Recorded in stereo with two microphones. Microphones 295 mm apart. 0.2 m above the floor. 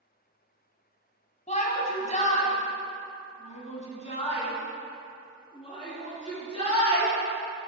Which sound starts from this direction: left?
A shout, at 1.5 s.